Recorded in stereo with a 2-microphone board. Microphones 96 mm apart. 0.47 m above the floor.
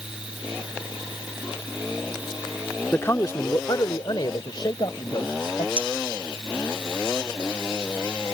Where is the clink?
70° left (ahead or behind).